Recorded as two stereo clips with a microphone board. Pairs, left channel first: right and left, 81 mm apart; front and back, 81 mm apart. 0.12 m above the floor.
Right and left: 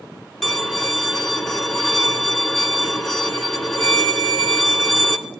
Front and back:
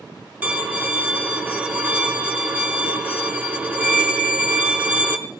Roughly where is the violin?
Behind.